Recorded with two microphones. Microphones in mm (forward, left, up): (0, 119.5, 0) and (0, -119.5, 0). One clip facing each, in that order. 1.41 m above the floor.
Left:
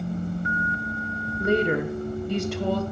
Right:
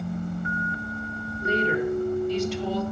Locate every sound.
1.4 s a woman speaking: 60° left (ahead or behind), 1.0 m